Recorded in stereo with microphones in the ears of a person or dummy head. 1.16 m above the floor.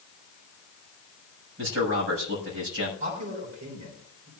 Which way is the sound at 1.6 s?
65° right (ahead or behind).